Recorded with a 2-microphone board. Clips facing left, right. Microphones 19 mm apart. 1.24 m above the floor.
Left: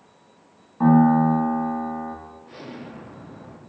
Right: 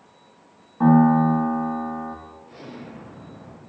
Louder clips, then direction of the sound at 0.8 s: Even; 5° left (ahead or behind).